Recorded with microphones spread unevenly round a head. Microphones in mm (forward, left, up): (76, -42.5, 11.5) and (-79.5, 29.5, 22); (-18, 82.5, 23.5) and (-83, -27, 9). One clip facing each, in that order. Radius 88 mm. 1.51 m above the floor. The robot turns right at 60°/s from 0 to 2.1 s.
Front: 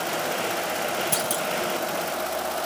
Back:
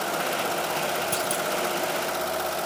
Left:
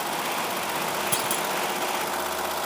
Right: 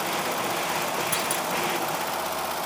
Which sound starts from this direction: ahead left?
A clunk, at 1.1 s.